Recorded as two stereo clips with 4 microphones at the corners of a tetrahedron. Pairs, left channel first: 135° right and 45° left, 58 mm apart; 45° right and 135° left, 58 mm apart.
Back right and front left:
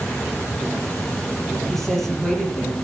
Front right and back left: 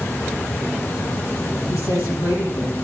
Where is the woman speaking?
50° right, 7 m.